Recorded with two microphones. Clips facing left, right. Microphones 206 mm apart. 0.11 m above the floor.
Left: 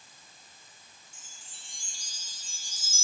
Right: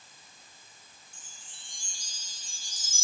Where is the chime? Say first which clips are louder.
Even; 20° right (ahead or behind), 3.5 m.